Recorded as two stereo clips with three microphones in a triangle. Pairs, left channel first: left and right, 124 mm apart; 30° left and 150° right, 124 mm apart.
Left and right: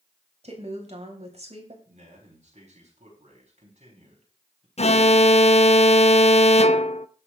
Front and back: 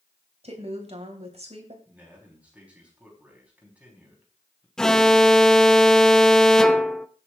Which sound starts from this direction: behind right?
A woman speaking, at 0.4 s.